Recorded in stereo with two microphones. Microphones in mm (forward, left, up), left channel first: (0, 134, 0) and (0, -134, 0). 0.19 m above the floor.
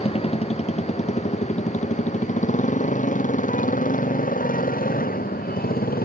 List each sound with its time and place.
0.0 s a motorcycle: 20° left (ahead or behind); by 6.0 s 35° left (ahead or behind)